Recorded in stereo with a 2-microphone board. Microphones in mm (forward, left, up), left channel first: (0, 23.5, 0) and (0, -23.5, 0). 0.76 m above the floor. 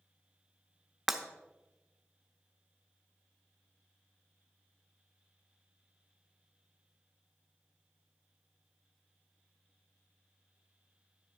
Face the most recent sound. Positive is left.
turn(degrees=-5)  # may be behind; listen again after turning